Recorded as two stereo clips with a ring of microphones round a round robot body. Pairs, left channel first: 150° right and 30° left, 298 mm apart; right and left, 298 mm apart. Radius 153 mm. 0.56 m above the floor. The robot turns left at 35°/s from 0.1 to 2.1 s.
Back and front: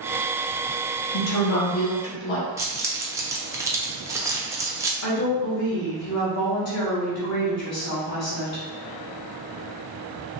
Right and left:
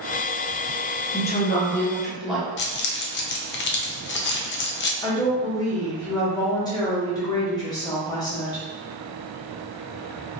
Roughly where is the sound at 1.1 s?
Behind right.